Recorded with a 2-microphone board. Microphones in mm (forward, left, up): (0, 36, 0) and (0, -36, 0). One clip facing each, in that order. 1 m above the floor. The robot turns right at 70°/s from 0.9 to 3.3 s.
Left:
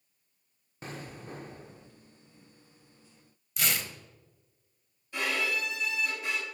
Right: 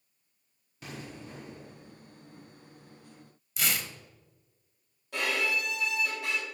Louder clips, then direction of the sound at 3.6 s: Even; centre (ahead or behind).